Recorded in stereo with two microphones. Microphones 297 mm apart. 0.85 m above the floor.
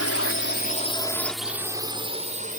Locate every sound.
0.0 s a drone: 50° left (ahead or behind); by 2.6 s 25° right (ahead or behind)